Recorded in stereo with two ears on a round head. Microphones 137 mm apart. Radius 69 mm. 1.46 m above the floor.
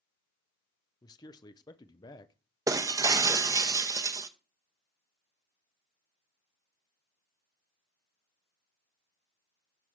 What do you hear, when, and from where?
1.0 s a man speaking: 25° left (ahead or behind), 0.7 m
2.7 s breaking glass: 20° right (ahead or behind), 0.7 m